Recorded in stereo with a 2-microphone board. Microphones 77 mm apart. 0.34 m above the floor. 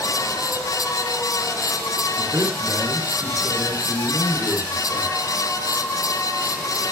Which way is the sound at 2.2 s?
40° right (ahead or behind).